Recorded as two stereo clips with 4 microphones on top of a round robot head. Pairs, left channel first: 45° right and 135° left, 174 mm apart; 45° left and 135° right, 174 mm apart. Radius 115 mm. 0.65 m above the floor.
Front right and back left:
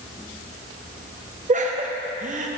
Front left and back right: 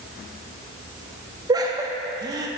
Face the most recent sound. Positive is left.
turn(degrees=165)